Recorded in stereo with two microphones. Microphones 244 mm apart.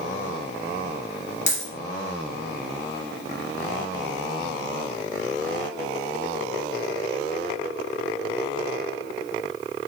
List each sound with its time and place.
1.5 s a dropped coin: 30° left (ahead or behind), 1.6 m